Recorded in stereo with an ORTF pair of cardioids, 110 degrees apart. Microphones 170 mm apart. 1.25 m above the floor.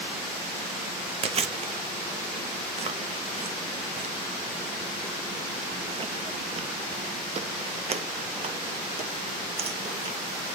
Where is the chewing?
35° right, 0.8 m.